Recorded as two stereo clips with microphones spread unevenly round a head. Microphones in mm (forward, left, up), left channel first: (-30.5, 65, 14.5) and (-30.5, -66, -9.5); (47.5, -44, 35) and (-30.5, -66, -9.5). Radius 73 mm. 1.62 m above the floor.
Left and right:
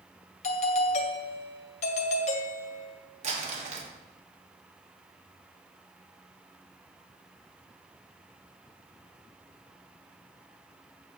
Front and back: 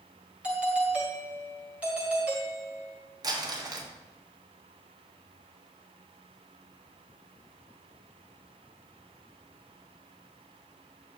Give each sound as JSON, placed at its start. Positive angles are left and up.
{"t": 0.4, "sound": "a doorbell", "azimuth_deg": 125, "distance_m": 1.7}
{"t": 3.2, "sound": "crumpling", "azimuth_deg": -120, "distance_m": 2.5}